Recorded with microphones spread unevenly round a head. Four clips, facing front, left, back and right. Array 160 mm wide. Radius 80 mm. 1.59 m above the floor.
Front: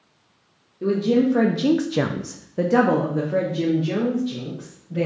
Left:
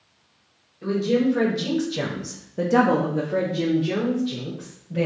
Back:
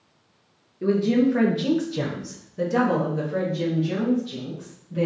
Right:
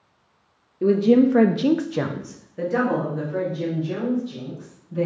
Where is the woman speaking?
80° right, 0.8 m; by 5.1 s 55° left, 2 m.